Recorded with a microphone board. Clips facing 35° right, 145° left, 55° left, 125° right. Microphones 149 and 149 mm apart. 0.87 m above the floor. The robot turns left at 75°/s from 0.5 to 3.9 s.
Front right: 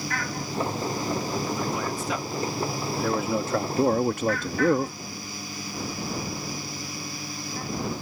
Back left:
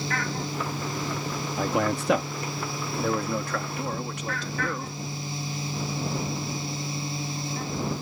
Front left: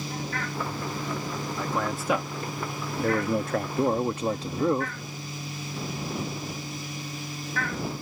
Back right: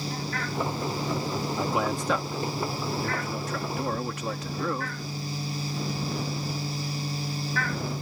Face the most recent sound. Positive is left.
turn(degrees=0)